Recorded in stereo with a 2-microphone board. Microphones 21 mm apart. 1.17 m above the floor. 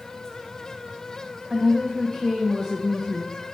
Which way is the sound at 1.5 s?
30° right (ahead or behind).